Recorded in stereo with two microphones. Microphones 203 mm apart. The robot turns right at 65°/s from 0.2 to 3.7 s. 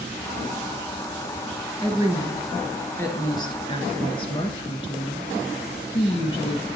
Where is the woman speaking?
25° right (ahead or behind), 1.2 m; by 6.7 s 30° left (ahead or behind), 1.2 m.